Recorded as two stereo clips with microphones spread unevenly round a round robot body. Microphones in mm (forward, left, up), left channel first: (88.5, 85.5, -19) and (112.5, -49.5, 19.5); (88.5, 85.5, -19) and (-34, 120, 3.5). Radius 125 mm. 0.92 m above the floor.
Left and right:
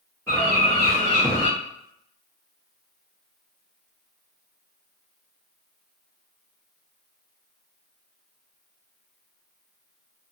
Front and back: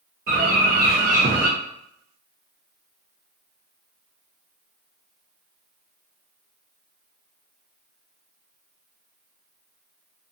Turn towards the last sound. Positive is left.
turn(degrees=180)